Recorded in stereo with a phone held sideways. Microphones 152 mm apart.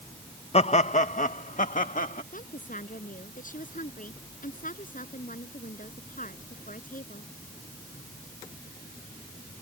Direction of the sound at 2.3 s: 60° left (ahead or behind).